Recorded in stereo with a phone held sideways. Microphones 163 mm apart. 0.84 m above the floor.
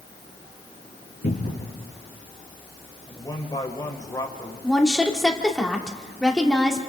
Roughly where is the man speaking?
Left.